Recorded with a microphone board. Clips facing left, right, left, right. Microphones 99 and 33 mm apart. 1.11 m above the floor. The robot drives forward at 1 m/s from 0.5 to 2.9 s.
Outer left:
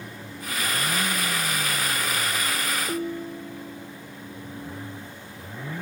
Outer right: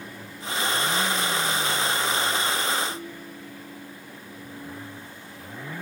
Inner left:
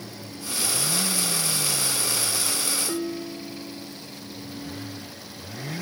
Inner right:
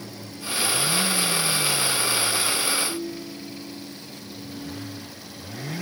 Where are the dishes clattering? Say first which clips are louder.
Outer left 7 dB, inner left 2 dB; 75° left (ahead or behind), 2 m.